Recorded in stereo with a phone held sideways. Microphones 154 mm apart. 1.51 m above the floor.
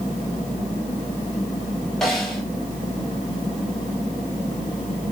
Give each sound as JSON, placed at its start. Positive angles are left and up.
{"t": 2.0, "sound": "a snare drum", "side_deg": 0, "distance_m": 5.0}